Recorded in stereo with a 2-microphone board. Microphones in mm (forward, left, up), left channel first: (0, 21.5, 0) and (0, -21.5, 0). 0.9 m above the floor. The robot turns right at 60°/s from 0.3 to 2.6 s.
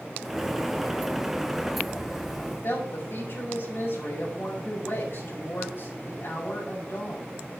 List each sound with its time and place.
2.5 s a woman speaking: 60° left (ahead or behind), 5 m; by 7.4 s 55° left (ahead or behind), 5 m